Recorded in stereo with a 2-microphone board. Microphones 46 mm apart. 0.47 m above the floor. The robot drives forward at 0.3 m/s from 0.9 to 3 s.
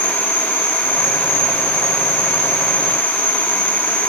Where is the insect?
20° right (ahead or behind), 1.8 m; by 4.1 s 30° right (ahead or behind), 1.3 m.